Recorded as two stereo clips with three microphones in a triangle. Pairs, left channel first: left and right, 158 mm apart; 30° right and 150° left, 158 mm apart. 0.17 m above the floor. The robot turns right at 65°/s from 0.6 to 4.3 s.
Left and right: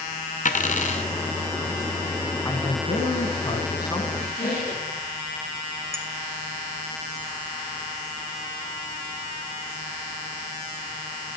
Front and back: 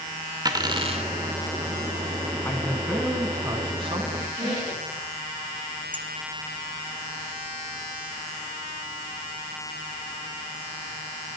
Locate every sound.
0.5 s a dropped coin: 90° left, 0.8 m; by 1.1 s 125° left, 0.8 m
2.5 s a man speaking: 40° left, 1.2 m; by 4.0 s 140° left, 1.2 m
4.1 s a squeak: 80° left, 6.5 m; by 5.0 s 90° left, 6.5 m
5.9 s a clink: 145° right, 1.1 m